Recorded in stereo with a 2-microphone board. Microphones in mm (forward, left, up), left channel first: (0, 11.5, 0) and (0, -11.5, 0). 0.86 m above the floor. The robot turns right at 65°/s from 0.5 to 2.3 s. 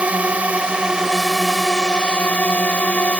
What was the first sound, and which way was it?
A drone, 60° right.